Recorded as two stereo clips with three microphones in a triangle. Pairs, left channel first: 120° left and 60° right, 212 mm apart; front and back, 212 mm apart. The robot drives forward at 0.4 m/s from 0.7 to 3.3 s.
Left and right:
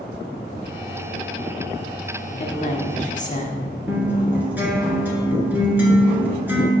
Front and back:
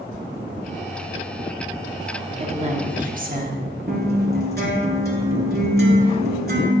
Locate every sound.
2.4 s a woman speaking: 140° left, 0.8 m; by 3.7 s 155° left, 1.1 m
3.9 s a guitar: 140° right, 1.6 m